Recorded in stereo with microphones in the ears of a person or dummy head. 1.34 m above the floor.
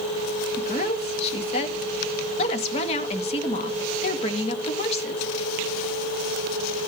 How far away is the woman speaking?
About 1.8 m.